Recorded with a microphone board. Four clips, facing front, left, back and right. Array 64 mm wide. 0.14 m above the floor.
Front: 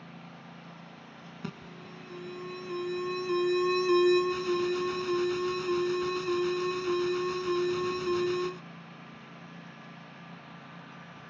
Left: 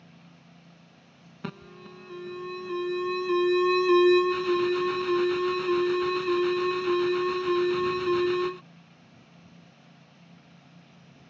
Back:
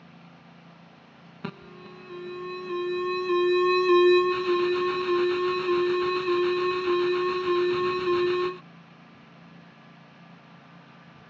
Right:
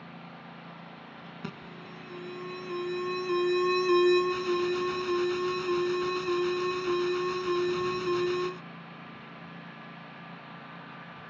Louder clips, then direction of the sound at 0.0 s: Right 9 dB, front 3 dB; 75° right.